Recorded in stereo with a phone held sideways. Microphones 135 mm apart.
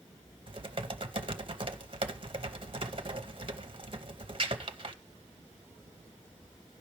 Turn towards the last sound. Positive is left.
turn(degrees=-40)  # may be behind; listen again after turning